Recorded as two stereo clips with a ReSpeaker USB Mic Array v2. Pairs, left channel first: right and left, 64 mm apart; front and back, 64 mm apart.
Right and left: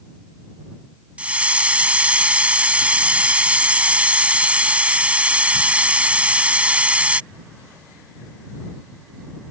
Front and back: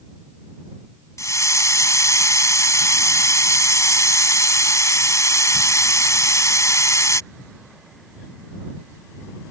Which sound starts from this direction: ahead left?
A hiss, at 1.2 s.